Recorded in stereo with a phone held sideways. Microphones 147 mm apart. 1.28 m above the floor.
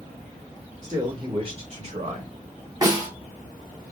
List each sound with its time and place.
0.8 s a man speaking: 25° right (ahead or behind), 2.5 m; by 2.3 s 55° right (ahead or behind), 3 m
2.8 s a snare drum: 25° right (ahead or behind), 3 m